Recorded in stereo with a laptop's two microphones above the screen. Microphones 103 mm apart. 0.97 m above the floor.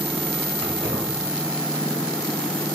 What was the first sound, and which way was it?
Keys jangling, 65° right (ahead or behind).